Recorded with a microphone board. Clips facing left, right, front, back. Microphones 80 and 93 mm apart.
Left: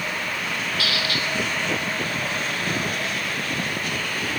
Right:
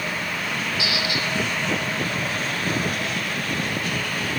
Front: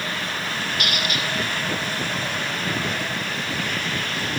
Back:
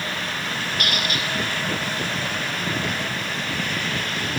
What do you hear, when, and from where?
0.8 s a squeak: 155° right, 1.0 m